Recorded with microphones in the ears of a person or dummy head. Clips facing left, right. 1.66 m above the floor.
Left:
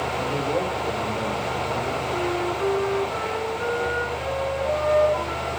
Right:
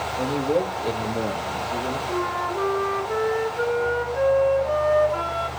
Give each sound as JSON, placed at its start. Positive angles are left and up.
{"t": 0.2, "sound": "a man speaking", "side_deg": -25, "distance_m": 3.0}
{"t": 2.1, "sound": "a flute", "side_deg": -75, "distance_m": 3.5}